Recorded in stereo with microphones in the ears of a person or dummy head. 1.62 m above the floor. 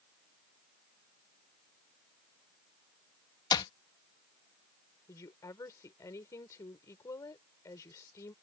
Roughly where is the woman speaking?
Centre.